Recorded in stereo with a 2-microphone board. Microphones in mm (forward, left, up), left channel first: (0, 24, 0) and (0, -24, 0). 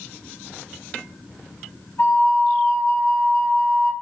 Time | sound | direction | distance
2.0 | a flute | 55° left (ahead or behind) | 1.0 m